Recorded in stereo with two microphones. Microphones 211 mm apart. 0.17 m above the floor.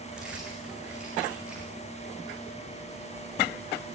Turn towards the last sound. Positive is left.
turn(degrees=-5)  # may be behind; listen again after turning